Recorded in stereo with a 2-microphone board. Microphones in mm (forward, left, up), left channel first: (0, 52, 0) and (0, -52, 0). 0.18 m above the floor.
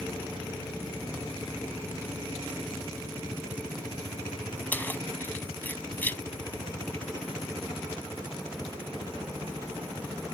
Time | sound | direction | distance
4.7 | keys jangling | 20° left (ahead or behind) | ?